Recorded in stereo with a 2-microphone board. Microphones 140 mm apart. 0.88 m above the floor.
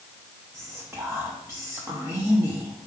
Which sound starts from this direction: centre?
Whispering, at 0.5 s.